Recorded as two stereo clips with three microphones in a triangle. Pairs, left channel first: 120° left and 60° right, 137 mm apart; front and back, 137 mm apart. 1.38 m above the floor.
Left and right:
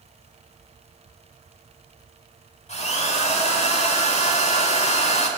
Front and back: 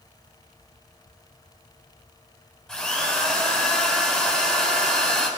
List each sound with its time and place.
2.7 s a drill: 90° left, 5.5 m